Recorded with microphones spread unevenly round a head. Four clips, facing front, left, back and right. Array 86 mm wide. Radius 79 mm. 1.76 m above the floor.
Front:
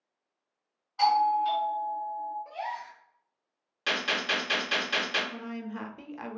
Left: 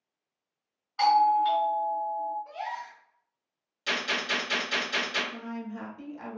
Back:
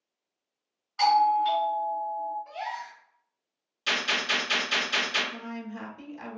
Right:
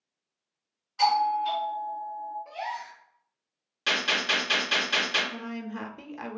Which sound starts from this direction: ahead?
A gasp, at 2.5 s.